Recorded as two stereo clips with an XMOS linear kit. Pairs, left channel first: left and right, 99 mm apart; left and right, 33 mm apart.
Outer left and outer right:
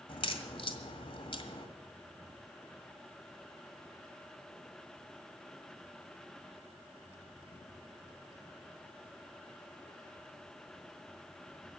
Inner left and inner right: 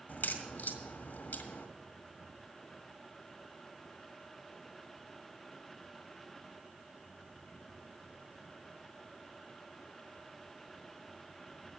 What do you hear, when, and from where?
0.1 s a crack: 60° left (ahead or behind), 1.8 m